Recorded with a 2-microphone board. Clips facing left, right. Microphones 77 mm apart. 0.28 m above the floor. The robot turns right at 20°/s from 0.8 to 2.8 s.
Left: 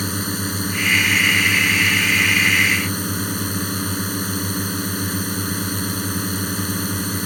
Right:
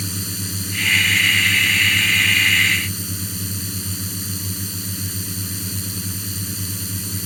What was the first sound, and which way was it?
A drone, 65° left.